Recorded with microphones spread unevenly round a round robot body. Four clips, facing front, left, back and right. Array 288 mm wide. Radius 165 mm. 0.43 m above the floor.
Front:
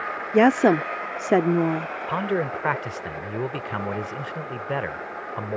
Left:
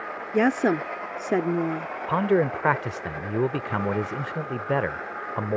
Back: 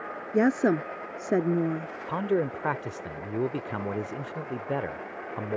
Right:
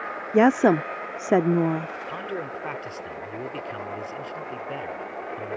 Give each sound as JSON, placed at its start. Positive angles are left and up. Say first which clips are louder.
{"t": 0.3, "sound": "a woman speaking", "louder": "right 4 dB, front 6 dB", "azimuth_deg": -30}
{"t": 2.1, "sound": "a man speaking", "louder": "left 14 dB, front 1 dB", "azimuth_deg": 70}